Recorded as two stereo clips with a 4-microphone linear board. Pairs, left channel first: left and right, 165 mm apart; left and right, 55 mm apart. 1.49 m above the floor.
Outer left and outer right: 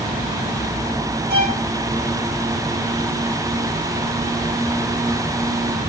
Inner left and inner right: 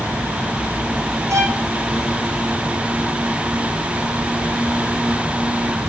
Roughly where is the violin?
Right.